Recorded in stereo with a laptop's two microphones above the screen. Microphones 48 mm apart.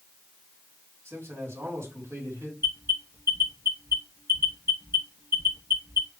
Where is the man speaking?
70° right (ahead or behind), 3.5 m.